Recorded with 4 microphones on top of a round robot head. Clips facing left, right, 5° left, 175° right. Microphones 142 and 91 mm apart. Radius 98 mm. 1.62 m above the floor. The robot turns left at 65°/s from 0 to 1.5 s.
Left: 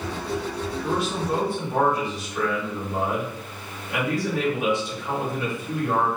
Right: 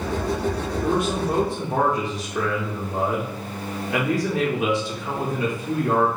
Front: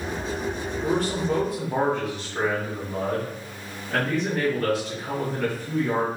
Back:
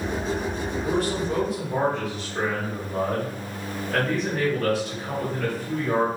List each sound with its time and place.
0.8 s a man speaking: 30° right, 0.8 m; by 6.1 s 75° right, 0.8 m